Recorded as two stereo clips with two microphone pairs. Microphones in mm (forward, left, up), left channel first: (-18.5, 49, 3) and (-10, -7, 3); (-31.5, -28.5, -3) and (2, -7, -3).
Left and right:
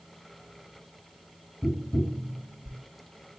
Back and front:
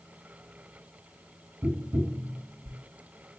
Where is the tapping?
25° left, 0.5 m.